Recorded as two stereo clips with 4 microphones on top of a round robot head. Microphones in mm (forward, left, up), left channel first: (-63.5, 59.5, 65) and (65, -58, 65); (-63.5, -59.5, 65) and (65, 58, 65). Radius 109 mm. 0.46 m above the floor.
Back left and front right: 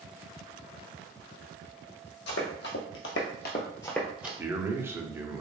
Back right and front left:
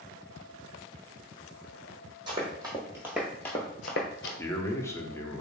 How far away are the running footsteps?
About 1.1 m.